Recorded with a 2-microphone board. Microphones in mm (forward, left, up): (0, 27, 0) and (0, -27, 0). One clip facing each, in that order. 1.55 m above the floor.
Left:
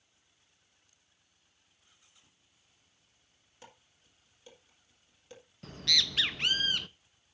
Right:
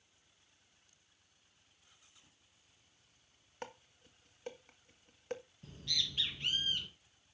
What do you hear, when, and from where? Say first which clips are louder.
3.6 s dishes clattering: right 8 dB; 55° right (ahead or behind), 1.6 m
5.6 s a bird: left 9 dB; 75° left (ahead or behind), 0.7 m